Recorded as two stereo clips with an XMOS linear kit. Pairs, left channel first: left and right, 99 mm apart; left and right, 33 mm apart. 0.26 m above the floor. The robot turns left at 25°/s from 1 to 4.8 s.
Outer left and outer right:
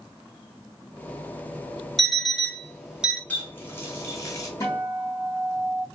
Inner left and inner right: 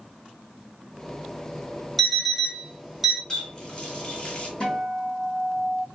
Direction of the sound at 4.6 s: 30° left (ahead or behind).